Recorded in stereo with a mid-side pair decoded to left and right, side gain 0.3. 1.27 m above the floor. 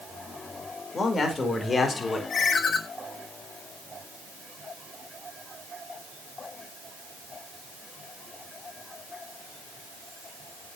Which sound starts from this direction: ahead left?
A man speaking, at 0.9 s.